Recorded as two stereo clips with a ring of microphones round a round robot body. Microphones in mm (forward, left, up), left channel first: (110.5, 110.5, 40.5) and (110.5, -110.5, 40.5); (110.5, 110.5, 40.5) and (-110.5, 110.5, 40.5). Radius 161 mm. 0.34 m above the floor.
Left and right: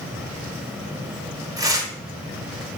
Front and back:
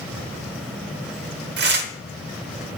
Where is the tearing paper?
160° right, 1.3 m.